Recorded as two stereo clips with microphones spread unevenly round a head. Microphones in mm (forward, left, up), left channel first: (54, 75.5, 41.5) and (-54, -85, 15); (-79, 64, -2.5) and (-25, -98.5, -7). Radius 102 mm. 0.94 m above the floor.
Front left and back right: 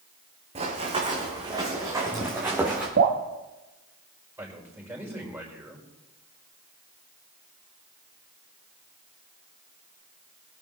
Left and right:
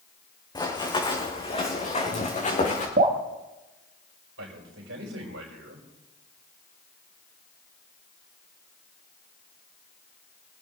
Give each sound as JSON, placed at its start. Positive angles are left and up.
{"t": 0.6, "sound": "running footsteps", "azimuth_deg": 175, "distance_m": 3.5}
{"t": 3.0, "sound": "dripping", "azimuth_deg": -100, "distance_m": 1.7}
{"t": 4.4, "sound": "a man speaking", "azimuth_deg": -45, "distance_m": 5.0}